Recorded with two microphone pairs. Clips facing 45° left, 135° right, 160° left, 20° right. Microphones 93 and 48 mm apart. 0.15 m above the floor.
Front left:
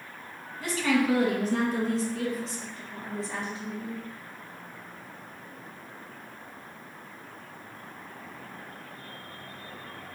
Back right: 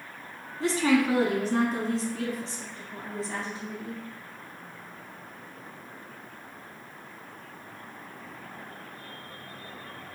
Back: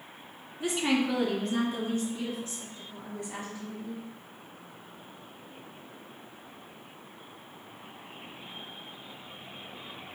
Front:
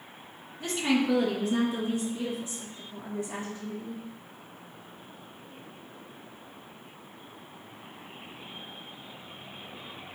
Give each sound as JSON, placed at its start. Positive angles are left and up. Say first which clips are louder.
{"t": 0.6, "sound": "a woman speaking", "louder": "back right 2 dB, front 1 dB", "azimuth_deg": -145, "distance_m": 1.2}